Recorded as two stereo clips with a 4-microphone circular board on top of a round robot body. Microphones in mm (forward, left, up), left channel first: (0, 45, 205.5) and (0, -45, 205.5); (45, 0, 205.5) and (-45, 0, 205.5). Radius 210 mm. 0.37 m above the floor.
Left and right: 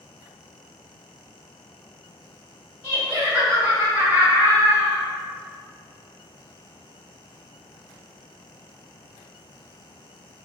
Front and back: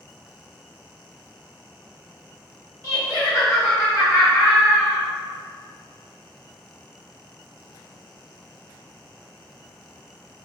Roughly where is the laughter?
Ahead right.